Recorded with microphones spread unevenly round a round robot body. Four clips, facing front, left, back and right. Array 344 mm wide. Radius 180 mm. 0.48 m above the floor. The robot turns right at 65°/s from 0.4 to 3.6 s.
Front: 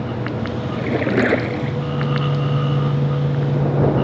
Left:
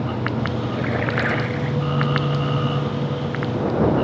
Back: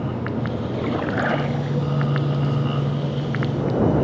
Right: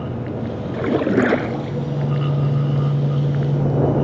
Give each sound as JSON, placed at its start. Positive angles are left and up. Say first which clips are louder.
{"t": 0.7, "sound": "a splash", "louder": "right 9 dB, front 6 dB", "azimuth_deg": -95}